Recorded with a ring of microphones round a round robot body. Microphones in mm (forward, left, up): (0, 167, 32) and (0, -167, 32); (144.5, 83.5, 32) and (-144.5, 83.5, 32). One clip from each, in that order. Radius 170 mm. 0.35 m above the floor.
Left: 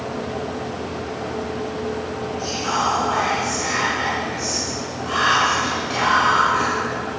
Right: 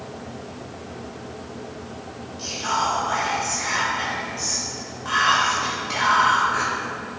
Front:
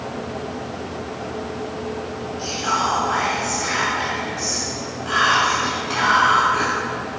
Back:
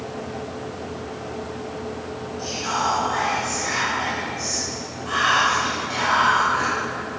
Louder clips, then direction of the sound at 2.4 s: Left 1 dB, front 3 dB; 100° right.